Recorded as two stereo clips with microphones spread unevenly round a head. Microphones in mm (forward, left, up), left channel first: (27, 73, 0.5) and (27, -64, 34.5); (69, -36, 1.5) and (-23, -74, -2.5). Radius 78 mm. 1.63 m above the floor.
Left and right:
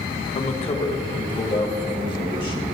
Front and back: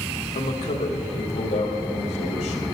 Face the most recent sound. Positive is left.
turn(degrees=30)